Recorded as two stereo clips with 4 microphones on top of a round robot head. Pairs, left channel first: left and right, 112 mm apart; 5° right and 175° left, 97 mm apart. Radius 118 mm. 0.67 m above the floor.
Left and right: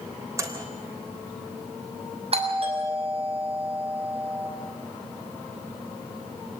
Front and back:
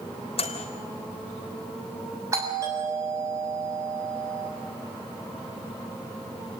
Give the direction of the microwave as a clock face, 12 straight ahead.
1 o'clock.